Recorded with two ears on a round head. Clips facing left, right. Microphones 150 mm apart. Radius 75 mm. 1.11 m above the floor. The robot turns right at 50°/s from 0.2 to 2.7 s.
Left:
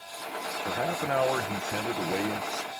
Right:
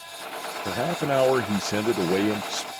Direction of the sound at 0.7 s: 145° right.